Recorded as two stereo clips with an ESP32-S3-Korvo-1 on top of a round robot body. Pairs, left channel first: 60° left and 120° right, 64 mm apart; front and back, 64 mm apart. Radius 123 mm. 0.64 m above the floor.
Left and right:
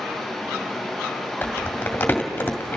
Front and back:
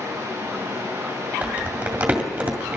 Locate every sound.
0.0 s running water: 155° left, 9 m
1.4 s crumpling: 120° left, 2.0 m